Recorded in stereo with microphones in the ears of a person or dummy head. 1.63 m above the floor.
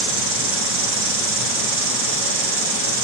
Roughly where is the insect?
Right.